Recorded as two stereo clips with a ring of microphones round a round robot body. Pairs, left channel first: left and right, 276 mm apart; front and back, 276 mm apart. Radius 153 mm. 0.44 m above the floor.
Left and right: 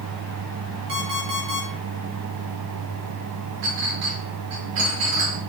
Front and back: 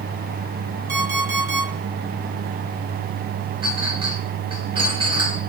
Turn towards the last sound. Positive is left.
turn(degrees=-105)